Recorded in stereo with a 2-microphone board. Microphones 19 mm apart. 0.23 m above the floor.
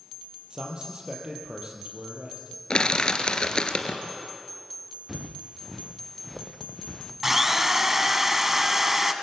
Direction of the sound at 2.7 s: 50° left (ahead or behind).